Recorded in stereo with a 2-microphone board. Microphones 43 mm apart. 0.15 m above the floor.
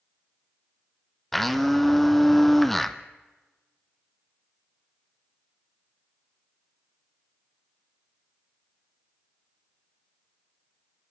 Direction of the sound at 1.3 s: 5° left (ahead or behind).